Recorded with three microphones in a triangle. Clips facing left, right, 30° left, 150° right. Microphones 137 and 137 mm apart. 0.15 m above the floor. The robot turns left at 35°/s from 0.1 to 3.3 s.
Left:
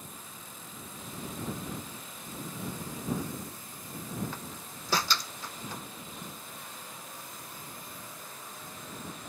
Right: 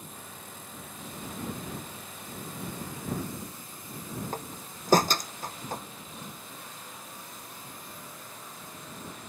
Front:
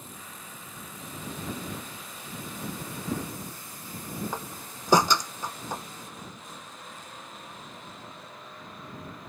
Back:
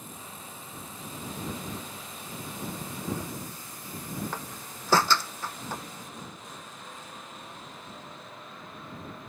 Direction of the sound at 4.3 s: 45° right.